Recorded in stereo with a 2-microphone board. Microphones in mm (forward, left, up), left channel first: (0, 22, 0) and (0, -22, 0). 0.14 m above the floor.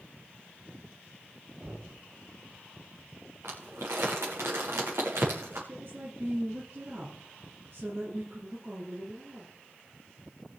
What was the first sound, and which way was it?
Knocking, 35° right (ahead or behind).